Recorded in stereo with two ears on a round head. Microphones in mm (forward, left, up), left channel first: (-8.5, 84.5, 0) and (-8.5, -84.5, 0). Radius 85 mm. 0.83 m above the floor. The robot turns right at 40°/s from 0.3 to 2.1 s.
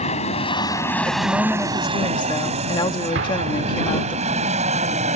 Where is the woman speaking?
15° right; by 4.2 s 30° left.